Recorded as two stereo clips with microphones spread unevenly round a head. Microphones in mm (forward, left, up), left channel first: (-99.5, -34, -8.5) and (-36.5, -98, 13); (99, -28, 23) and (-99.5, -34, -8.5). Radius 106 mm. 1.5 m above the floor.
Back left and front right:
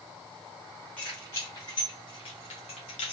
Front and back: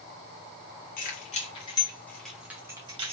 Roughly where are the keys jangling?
Ahead left.